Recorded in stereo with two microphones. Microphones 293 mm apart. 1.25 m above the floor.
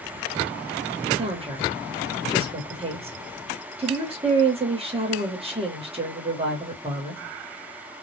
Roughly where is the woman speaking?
Centre.